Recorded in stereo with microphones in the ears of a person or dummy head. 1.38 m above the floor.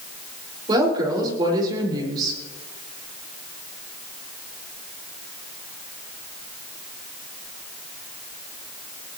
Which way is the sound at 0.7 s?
25° right (ahead or behind).